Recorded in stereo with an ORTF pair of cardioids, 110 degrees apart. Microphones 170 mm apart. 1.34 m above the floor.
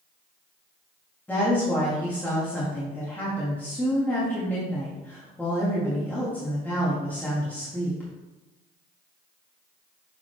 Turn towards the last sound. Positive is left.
turn(degrees=10)